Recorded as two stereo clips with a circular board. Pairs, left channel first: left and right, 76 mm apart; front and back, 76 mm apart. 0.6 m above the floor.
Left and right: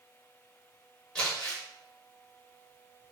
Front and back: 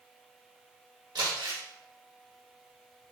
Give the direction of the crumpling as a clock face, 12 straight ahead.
6 o'clock.